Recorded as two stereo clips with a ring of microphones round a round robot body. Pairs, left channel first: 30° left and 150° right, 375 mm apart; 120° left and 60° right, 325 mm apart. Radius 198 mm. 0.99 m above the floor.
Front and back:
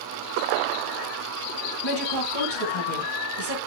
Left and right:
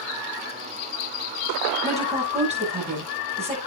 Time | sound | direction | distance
1.8 | a woman speaking | 10° left | 7.5 m